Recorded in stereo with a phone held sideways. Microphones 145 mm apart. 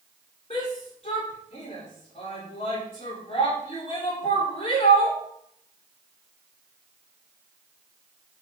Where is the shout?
50° left (ahead or behind), 4.5 m.